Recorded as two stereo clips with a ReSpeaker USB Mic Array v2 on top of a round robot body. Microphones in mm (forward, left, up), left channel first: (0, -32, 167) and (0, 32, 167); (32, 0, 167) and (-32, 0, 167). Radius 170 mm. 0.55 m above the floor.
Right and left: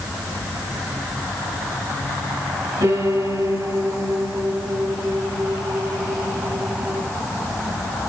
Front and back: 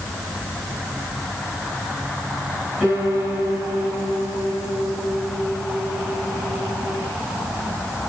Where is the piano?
95° left, 6 m.